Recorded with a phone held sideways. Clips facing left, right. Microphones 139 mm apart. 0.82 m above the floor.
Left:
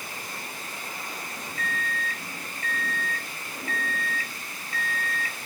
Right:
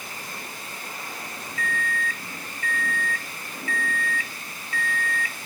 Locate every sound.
1.6 s a microwave: 35° left (ahead or behind), 0.6 m